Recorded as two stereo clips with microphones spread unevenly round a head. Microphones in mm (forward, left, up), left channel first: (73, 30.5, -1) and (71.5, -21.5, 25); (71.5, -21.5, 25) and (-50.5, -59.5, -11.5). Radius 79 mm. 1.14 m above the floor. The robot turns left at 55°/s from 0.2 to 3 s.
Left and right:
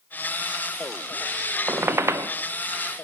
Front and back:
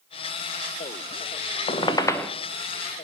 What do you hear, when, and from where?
1.7 s a squeak: 30° right, 0.6 m; by 2.3 s 65° right, 0.6 m